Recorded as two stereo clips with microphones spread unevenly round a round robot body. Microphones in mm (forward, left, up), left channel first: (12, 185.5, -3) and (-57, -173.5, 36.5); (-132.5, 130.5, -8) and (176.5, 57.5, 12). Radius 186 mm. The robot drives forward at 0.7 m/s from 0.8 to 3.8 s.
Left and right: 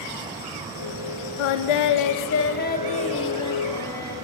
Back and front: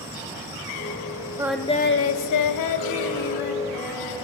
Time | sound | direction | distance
1.4 | singing | 65° left | 0.5 m